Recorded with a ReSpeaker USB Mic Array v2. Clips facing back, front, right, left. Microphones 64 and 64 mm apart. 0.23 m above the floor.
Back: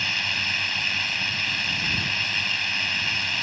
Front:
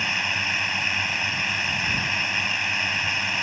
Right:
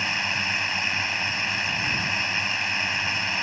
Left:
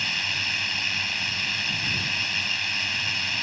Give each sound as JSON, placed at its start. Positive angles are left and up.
{"t": 0.0, "sound": "a drone", "azimuth_deg": -55}